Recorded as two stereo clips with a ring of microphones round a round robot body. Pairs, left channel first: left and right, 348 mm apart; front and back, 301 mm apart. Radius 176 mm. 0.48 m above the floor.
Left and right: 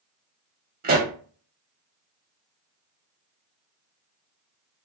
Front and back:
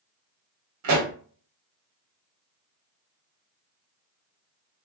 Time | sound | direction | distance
0.8 | a pop | 155° right | 0.8 m